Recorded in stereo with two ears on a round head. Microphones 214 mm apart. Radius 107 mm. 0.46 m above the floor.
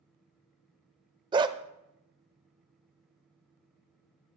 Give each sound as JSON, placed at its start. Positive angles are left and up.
{"t": 1.3, "sound": "a dog barking", "side_deg": -20, "distance_m": 0.7}